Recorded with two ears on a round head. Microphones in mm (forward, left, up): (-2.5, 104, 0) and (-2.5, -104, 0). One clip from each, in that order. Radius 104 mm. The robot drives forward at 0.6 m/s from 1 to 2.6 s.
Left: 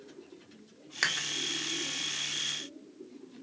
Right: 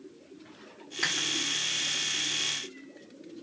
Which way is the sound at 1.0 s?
50° left (ahead or behind).